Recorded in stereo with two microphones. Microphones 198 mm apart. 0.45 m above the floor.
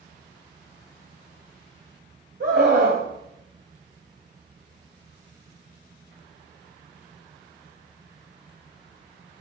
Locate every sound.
2.4 s a scream: 50° right (ahead or behind), 2.5 m